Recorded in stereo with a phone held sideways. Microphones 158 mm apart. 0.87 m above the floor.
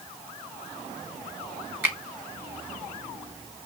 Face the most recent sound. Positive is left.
turn(degrees=-15)  # may be behind; listen again after turning